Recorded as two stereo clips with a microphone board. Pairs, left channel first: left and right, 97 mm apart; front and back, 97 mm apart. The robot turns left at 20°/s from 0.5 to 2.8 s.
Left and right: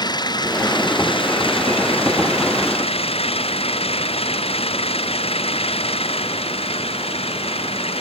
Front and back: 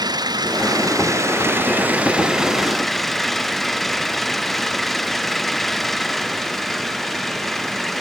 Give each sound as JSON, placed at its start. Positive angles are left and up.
{"t": 0.0, "sound": "an engine running", "azimuth_deg": 135}